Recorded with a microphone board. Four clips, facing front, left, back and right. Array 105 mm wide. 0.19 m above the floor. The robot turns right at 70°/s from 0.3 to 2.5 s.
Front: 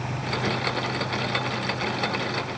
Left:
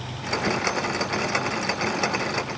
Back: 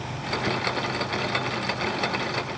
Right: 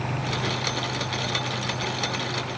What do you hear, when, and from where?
Only background noise.